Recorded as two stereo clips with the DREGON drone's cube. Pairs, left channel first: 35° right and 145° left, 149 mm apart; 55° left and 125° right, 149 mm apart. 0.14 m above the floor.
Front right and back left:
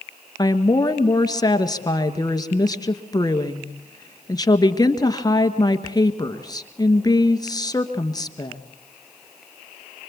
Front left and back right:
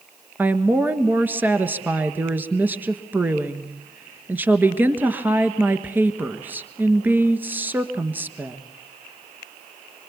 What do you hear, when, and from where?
0.4 s a woman speaking: 60° right, 1.3 m